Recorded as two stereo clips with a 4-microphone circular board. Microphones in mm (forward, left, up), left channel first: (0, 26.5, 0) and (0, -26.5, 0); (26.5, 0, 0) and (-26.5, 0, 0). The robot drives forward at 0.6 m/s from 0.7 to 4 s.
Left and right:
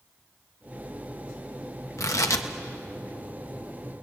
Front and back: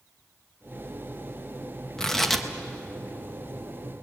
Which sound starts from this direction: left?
Tearing paper, at 2.0 s.